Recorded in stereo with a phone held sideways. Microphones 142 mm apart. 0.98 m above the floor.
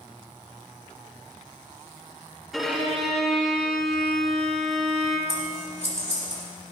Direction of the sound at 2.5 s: Centre (ahead or behind).